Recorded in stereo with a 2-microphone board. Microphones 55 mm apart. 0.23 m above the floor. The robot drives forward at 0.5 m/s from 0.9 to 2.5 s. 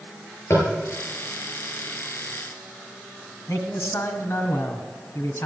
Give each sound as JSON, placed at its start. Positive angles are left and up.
{"t": 0.5, "sound": "tapping", "side_deg": 50, "distance_m": 6.5}
{"t": 3.5, "sound": "a man speaking", "side_deg": 55, "distance_m": 2.0}